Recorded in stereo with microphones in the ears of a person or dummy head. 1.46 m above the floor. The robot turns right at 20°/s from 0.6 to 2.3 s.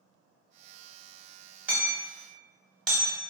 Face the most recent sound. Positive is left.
turn(degrees=5)  # may be behind; listen again after turning